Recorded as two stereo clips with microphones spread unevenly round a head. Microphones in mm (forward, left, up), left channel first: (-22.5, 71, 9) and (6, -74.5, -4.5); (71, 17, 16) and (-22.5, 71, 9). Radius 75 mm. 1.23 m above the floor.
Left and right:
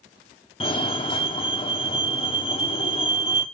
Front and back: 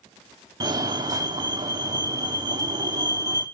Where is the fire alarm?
145° left, 1.2 m.